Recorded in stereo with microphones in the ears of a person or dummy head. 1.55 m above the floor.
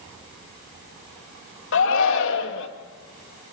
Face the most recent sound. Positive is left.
turn(degrees=70)  # may be behind; listen again after turning